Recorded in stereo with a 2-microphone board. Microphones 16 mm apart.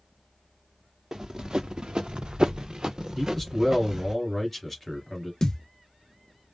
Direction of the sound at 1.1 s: 50° right (ahead or behind).